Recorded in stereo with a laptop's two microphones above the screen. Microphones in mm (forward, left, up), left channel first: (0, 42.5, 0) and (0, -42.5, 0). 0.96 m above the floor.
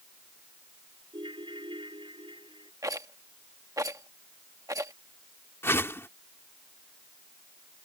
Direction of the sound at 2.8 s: 40° right (ahead or behind).